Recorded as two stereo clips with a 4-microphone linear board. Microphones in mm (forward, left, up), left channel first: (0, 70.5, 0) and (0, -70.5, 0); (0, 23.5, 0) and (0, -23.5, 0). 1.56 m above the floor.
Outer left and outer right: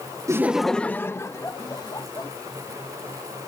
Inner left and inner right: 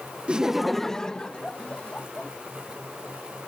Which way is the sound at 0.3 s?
25° right (ahead or behind).